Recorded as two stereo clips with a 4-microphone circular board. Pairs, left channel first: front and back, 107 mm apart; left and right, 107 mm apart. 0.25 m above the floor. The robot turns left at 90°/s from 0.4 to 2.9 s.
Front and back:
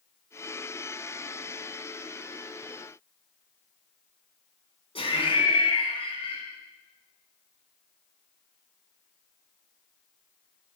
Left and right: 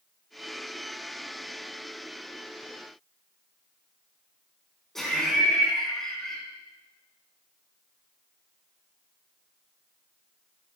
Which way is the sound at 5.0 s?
5° left.